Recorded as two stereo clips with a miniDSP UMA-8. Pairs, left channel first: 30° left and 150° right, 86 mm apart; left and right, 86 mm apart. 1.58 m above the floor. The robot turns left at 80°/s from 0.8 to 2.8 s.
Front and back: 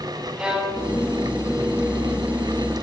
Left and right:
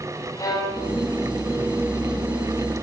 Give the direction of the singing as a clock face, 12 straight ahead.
No singing in this recording.